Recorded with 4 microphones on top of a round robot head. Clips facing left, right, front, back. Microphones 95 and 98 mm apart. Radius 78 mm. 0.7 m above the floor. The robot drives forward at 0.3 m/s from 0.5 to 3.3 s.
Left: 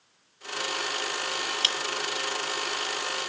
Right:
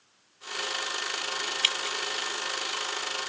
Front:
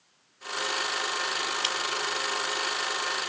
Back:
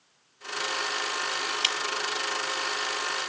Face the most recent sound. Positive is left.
turn(degrees=155)